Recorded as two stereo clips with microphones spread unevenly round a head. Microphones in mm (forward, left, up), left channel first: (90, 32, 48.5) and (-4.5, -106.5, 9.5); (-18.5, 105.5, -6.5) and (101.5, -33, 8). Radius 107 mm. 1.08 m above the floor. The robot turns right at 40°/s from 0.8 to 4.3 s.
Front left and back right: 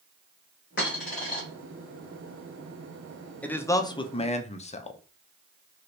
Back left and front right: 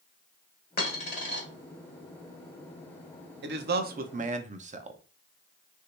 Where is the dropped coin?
90° left, 1.5 m; by 1.4 s 115° left, 1.5 m.